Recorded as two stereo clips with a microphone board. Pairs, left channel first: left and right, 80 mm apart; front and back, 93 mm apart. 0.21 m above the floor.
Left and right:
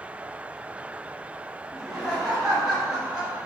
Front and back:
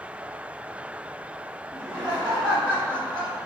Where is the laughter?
165° left, 1.7 m; by 3.4 s 135° right, 1.9 m.